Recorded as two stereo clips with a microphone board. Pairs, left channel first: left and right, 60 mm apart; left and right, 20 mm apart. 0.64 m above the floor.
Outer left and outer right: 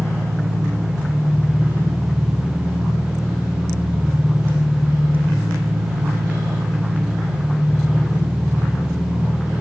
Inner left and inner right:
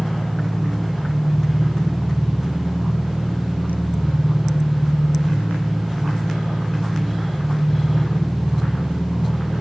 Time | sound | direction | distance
0.0 | an engine running | 10° right (ahead or behind) | 2.5 m